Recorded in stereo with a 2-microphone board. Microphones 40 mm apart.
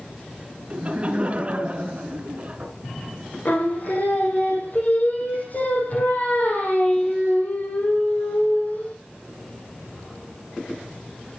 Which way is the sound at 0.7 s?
35° right (ahead or behind).